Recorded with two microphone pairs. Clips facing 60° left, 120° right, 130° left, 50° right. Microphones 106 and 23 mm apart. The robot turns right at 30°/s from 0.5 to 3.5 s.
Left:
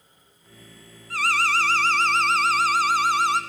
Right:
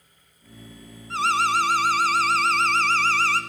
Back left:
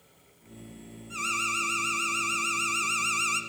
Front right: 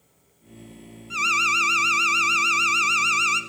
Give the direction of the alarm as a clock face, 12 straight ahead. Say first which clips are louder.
Right 2 dB, front right 9 dB; 3 o'clock.